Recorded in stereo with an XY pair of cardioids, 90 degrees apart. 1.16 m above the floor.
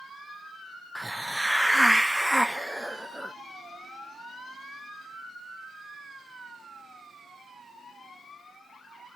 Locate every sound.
0.9 s a hiss: 5° right, 0.6 m